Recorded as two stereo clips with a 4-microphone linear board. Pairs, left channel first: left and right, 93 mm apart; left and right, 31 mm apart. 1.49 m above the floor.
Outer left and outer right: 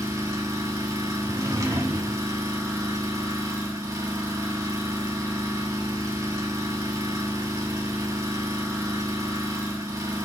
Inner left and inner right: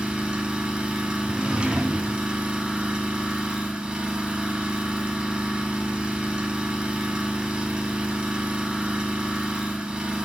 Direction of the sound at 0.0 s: 35° right (ahead or behind).